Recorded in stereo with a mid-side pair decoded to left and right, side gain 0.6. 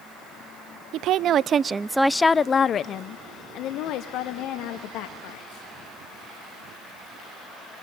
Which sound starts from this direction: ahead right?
A woman speaking, at 0.9 s.